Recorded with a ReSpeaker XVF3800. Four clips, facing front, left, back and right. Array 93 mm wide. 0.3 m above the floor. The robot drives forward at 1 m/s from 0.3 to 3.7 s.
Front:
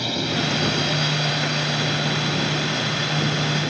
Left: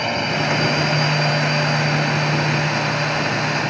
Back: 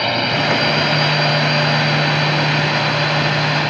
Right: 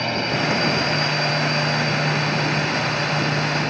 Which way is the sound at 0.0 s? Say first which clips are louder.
Left 1 dB, back 7 dB; 170° left.